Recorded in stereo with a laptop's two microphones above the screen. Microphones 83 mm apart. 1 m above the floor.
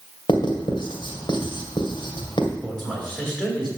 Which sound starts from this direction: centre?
A man speaking, at 2.6 s.